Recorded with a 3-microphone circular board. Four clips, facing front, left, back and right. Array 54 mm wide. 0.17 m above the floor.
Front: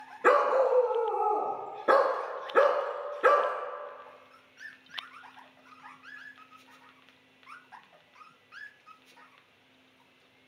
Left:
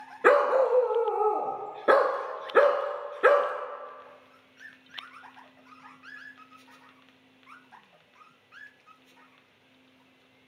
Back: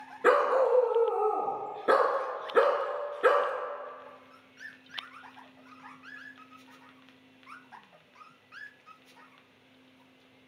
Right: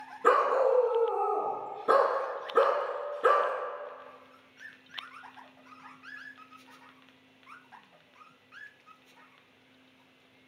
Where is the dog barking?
80° left, 0.6 m.